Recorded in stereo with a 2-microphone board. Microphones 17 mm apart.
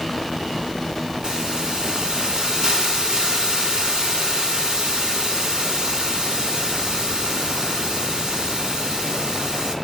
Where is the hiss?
65° right (ahead or behind), 3.5 m.